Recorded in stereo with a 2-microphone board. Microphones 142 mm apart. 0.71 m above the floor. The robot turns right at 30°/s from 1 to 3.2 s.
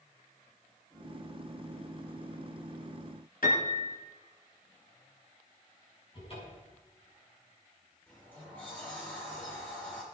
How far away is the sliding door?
About 5.5 m.